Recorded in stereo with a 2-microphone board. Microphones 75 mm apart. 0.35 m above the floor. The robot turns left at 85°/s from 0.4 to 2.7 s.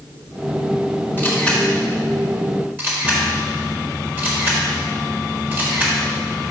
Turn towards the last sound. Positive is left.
turn(degrees=-25)  # may be behind; listen again after turning